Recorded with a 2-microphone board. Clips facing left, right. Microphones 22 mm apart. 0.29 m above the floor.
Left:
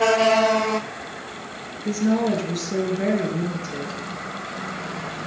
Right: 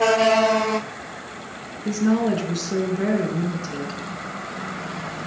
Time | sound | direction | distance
1.9 | a woman speaking | 50° right (ahead or behind) | 3.5 m